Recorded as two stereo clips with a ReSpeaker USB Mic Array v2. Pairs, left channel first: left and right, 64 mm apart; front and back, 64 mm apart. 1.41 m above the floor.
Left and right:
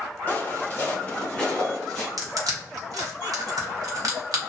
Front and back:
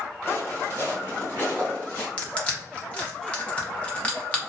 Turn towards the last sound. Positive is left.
turn(degrees=-70)